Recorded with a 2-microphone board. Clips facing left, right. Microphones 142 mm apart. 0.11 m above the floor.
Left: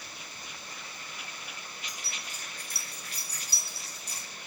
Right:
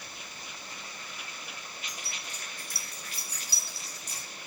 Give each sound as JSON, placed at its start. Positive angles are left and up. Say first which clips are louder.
{"t": 1.9, "sound": "keys jangling", "louder": "right 1 dB", "side_deg": -20, "distance_m": 1.0}